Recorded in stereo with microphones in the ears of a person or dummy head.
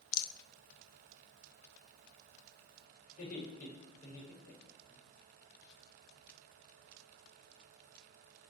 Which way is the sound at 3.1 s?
50° left (ahead or behind).